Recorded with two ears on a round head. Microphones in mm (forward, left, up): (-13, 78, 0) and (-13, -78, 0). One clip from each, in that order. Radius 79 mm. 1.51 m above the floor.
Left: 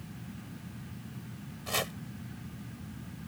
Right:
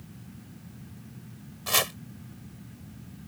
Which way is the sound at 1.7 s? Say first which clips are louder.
Right 7 dB; 45° right (ahead or behind).